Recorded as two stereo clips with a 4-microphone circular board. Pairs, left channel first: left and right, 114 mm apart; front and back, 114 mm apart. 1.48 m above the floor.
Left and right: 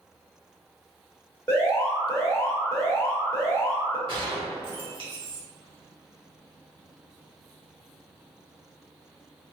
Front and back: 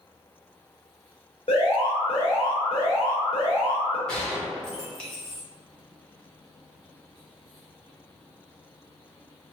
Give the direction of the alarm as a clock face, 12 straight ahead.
11 o'clock.